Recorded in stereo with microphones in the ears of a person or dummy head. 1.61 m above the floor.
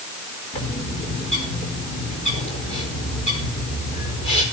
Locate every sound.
0.5 s a bird: 35° left (ahead or behind), 5 m